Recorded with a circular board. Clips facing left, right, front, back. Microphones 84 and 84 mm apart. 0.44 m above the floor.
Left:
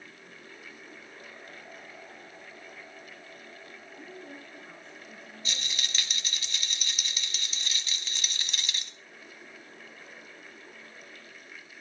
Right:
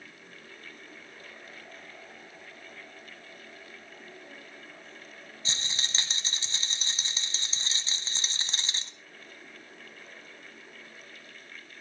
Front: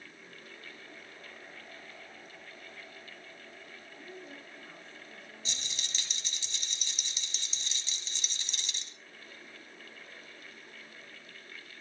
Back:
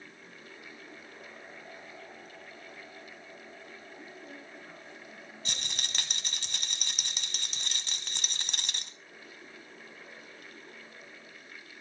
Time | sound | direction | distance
4.0 | a woman speaking | 110° left | 6 m
5.5 | a rattle | 150° right | 1.4 m